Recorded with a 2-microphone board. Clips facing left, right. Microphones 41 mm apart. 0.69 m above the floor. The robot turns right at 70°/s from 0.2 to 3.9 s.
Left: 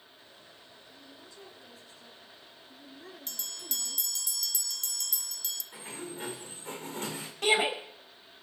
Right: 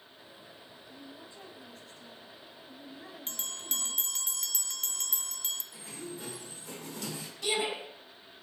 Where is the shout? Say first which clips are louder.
Left 5 dB; 55° left (ahead or behind), 4.5 m.